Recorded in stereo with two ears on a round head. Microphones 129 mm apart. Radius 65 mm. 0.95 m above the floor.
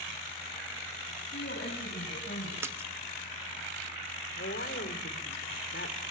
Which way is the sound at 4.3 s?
80° left.